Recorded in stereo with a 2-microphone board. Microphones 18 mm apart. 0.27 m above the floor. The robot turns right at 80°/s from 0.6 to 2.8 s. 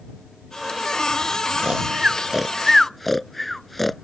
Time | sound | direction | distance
1.6 | snoring | 80° right | ?